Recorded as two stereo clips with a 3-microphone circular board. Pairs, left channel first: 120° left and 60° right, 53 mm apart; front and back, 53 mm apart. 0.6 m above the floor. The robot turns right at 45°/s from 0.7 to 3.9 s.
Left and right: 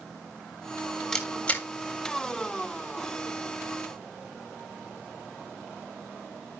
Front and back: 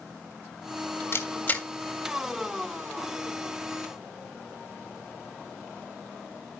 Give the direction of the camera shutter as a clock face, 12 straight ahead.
11 o'clock.